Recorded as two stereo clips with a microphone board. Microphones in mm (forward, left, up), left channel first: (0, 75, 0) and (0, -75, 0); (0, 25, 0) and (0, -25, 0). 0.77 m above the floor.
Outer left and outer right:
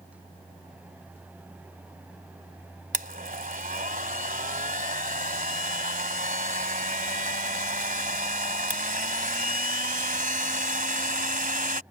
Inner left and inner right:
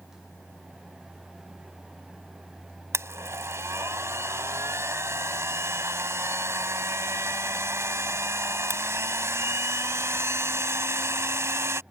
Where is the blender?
65° right (ahead or behind).